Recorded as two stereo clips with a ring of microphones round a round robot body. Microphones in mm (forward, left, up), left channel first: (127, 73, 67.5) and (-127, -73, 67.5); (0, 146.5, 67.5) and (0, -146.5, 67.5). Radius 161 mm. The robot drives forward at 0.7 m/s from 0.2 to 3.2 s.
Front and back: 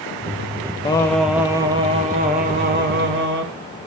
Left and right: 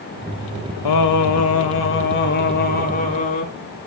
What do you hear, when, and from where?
0.8 s singing: 105° left, 1.0 m; by 3.5 s 155° left, 2 m